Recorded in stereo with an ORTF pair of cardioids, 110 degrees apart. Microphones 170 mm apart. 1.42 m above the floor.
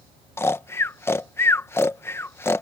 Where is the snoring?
15° left.